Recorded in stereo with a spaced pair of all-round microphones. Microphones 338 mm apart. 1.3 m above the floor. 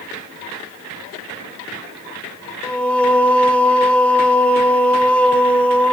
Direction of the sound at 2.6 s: 5° left (ahead or behind).